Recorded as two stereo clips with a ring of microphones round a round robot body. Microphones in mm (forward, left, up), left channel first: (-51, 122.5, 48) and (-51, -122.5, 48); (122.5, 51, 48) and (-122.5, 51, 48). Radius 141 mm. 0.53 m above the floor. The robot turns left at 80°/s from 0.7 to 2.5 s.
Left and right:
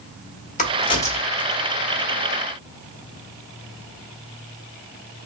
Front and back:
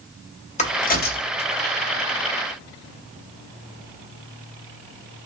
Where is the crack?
45° left, 1.0 m; by 1.6 s 30° right, 1.0 m.